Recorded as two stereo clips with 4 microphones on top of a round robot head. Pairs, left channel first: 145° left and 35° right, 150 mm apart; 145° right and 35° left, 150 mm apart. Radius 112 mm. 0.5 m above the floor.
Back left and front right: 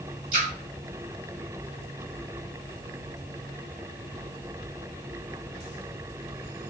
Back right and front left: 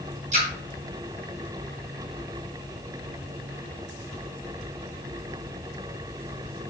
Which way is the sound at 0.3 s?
5° right.